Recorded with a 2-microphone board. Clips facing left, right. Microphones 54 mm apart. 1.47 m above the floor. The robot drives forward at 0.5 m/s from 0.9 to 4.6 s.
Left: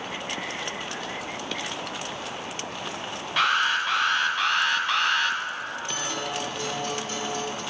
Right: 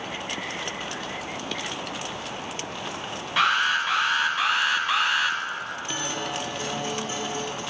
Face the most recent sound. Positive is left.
turn(degrees=-20)  # may be behind; listen again after turning